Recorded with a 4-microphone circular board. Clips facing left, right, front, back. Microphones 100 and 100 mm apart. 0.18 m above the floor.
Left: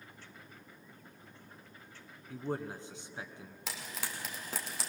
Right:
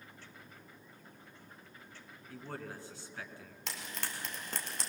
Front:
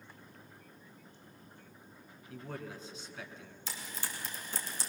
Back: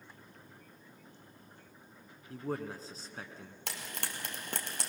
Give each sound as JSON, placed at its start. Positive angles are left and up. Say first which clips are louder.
{"t": 2.3, "sound": "a man speaking", "louder": "left 7 dB, back 6 dB", "azimuth_deg": 155, "distance_m": 1.7}
{"t": 3.7, "sound": "frying", "louder": "even, back 1 dB", "azimuth_deg": 175, "distance_m": 2.5}